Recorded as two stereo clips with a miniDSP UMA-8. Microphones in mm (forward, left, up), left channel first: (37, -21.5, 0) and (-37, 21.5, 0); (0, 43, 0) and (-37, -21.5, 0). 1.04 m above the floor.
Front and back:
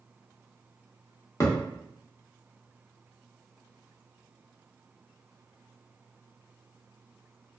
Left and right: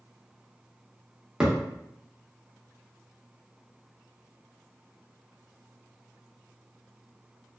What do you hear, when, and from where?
1.4 s a thud: 45° right, 0.7 m